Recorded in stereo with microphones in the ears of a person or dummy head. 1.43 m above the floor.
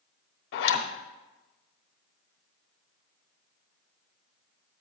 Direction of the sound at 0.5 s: 60° left (ahead or behind).